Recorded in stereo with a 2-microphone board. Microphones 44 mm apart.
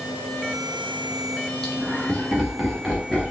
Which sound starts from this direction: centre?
Laughter, at 1.6 s.